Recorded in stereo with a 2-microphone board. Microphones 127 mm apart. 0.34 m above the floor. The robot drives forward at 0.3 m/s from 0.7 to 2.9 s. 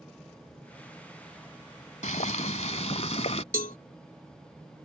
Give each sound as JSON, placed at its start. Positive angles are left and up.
{"t": 2.0, "sound": "boiling", "side_deg": 70}
{"t": 3.5, "sound": "a cowbell", "side_deg": 85}